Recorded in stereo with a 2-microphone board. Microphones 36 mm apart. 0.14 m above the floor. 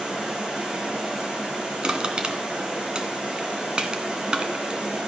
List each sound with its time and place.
0.0 s running water: 25° right (ahead or behind), 7.5 m
1.8 s crushing: 25° right (ahead or behind), 1.5 m